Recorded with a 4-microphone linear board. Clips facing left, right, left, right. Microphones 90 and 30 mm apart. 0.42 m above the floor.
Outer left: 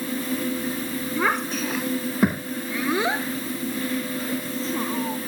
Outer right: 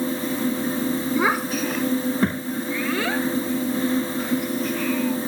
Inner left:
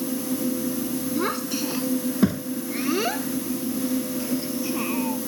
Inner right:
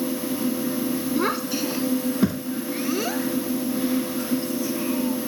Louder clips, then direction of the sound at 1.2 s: Outer left 1 dB, inner right 1 dB; 10° right (ahead or behind).